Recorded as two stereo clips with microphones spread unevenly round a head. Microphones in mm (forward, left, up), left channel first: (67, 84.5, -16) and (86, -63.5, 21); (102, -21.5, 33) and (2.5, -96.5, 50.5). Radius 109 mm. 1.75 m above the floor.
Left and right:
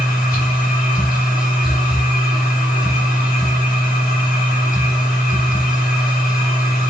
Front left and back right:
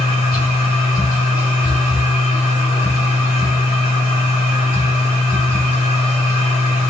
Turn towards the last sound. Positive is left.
turn(degrees=65)